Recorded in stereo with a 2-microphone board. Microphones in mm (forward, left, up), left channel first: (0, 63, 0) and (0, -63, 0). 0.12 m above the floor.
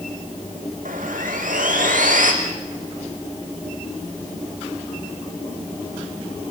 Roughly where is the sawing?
Right.